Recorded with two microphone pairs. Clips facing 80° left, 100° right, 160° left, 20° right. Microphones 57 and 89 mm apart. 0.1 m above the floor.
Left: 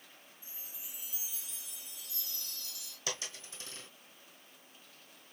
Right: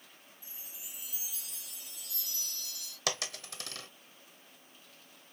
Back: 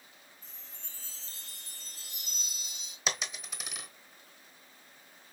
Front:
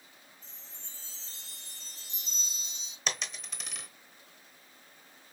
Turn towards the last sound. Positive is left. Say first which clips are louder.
# right 5 dB, back 1 dB
turn(degrees=-115)